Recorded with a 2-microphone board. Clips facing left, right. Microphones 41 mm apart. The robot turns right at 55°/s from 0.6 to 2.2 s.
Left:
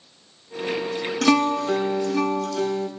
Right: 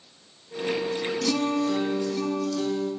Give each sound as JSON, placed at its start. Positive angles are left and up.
{"t": 1.2, "sound": "a guitar", "azimuth_deg": 70, "distance_m": 0.6}